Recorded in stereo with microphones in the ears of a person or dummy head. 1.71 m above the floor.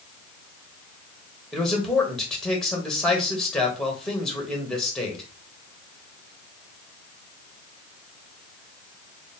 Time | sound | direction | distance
1.5 | a man speaking | centre (ahead or behind) | 1.2 m